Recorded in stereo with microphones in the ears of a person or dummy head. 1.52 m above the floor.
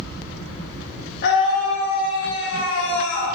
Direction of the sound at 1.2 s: 65° left (ahead or behind).